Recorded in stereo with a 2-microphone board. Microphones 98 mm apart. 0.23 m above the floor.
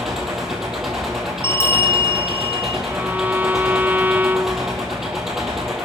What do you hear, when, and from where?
0.0 s an engine running: 5° right (ahead or behind), 5 m
1.4 s a bell: 30° left (ahead or behind), 1.8 m
2.9 s a violin: 20° right (ahead or behind), 0.6 m